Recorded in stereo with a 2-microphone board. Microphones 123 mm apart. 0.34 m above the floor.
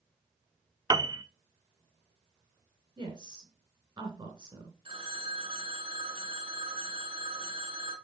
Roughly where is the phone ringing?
Right.